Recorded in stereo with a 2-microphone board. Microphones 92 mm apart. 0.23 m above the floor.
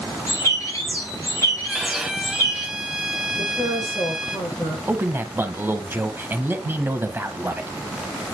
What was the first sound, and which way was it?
A bird, 30° left (ahead or behind).